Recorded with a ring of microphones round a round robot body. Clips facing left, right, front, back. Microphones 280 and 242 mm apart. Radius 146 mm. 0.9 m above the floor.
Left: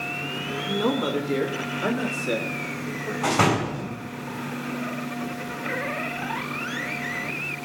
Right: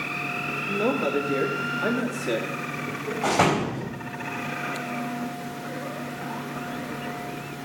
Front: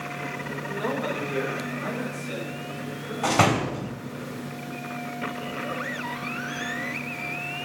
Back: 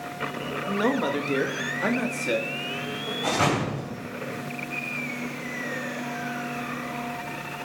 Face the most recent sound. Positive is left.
turn(degrees=15)